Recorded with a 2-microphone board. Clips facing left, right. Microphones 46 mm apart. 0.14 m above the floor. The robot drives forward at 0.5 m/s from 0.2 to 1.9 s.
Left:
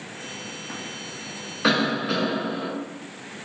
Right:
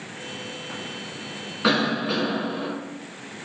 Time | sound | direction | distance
1.6 | a cough | 5° right (ahead or behind) | 1.0 m